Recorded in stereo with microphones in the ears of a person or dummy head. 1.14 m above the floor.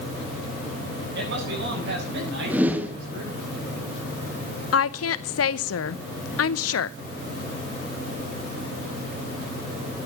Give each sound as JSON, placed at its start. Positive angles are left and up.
{"t": 1.1, "sound": "a man speaking", "side_deg": -65, "distance_m": 9.0}
{"t": 2.5, "sound": "a whoosh", "side_deg": -5, "distance_m": 1.5}
{"t": 4.7, "sound": "a woman speaking", "side_deg": 70, "distance_m": 0.7}